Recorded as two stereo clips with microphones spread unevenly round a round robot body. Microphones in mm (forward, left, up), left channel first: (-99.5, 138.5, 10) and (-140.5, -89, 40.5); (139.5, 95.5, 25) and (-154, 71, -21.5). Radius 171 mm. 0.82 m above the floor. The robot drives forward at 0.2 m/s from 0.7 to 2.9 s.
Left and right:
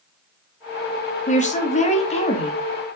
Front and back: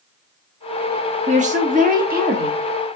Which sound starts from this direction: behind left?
A woman speaking, at 1.3 s.